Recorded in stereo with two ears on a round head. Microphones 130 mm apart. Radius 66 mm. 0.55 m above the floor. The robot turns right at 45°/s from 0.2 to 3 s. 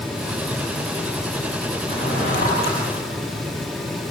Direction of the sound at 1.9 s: 35° left (ahead or behind).